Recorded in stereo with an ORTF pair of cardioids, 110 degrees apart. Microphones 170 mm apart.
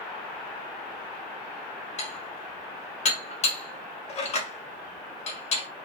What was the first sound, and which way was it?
Dishes clattering, 40° left.